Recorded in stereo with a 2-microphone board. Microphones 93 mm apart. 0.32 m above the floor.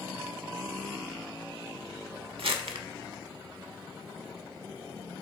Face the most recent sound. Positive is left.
turn(degrees=-75)  # may be behind; listen again after turning